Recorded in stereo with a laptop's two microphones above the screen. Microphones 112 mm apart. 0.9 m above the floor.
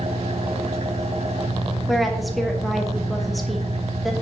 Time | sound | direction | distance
0.0 | an engine running | 65° right (ahead or behind) | 0.9 m
1.9 | a woman speaking | centre (ahead or behind) | 1.2 m